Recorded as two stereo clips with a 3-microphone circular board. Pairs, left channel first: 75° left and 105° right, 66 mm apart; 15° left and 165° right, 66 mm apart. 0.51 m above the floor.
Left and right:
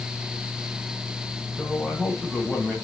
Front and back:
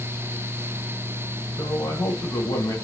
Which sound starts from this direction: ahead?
A man speaking, at 1.6 s.